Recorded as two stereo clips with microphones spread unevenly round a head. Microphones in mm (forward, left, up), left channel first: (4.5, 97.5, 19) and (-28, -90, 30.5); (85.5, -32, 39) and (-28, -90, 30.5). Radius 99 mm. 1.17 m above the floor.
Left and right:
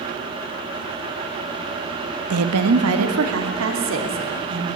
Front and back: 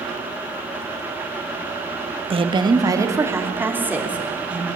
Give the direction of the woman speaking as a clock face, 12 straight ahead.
4 o'clock.